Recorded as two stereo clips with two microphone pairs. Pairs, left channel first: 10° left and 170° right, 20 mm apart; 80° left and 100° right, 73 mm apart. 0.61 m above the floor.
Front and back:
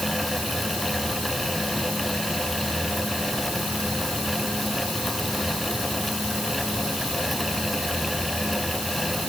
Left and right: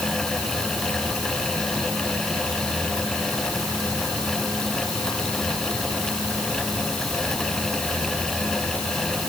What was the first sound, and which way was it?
Only background noise.